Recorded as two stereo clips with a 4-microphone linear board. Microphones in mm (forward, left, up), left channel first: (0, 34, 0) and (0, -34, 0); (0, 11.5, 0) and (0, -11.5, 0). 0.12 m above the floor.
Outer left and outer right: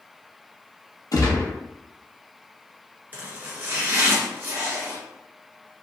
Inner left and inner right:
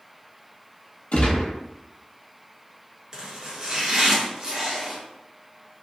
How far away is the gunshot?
About 0.8 m.